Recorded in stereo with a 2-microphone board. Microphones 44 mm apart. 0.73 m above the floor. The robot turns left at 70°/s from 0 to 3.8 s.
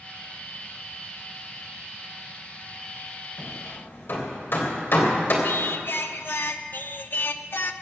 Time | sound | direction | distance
3.4 | hammering | 80° left | 3 m
5.4 | singing | 60° left (ahead or behind) | 0.7 m